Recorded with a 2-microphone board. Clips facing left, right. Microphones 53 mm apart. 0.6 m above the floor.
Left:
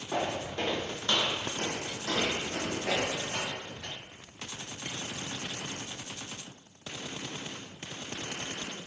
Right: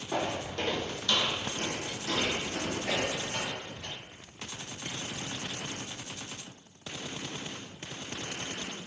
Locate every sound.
0.1 s footsteps: 5° left (ahead or behind), 1.2 m; by 3.9 s 60° left (ahead or behind), 2.0 m